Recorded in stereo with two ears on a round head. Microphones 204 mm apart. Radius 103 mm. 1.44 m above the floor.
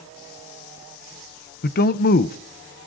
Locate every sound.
1.6 s a man speaking: 40° left (ahead or behind), 0.6 m